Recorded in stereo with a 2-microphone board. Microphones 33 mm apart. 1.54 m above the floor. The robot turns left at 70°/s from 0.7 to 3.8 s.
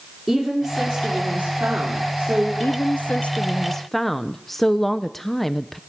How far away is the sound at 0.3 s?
About 4 m.